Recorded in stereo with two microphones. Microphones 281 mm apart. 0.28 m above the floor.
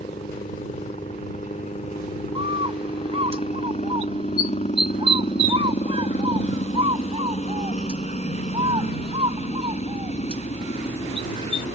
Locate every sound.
0.0 s a helicopter: 25° left (ahead or behind)
2.4 s a bird: 20° right (ahead or behind)